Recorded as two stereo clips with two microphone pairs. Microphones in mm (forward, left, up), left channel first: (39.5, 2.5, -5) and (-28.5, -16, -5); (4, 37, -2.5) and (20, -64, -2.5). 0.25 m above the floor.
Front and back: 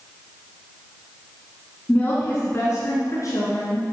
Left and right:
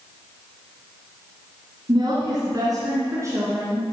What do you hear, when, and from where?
1.9 s a woman speaking: 50° right, 2.0 m; by 3.8 s 15° right, 3 m